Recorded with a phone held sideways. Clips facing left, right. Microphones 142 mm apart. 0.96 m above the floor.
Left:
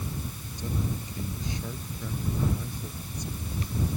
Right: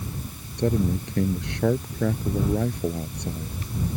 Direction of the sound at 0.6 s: 70° right (ahead or behind).